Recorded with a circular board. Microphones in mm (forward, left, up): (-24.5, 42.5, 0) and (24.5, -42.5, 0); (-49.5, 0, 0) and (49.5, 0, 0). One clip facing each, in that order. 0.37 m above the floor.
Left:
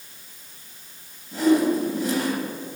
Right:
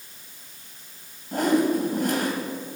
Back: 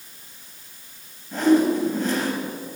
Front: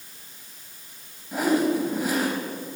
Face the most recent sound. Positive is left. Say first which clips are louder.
# left 2 dB, back 4 dB
turn(degrees=-80)